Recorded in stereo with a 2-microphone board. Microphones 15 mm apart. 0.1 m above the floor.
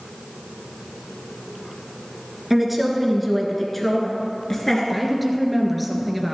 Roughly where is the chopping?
No chopping in this recording.